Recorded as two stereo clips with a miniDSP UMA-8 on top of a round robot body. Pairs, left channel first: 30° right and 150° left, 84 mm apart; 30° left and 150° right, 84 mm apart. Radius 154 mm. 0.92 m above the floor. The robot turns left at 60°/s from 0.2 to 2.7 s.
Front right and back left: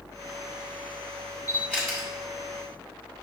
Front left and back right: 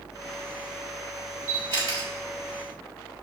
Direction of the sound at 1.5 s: 95° right.